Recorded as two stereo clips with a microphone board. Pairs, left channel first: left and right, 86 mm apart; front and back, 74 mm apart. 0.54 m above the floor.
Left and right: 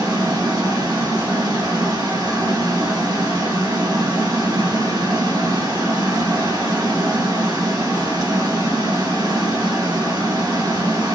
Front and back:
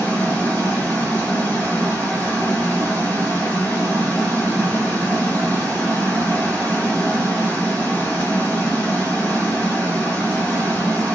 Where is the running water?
60° right, 1.7 m.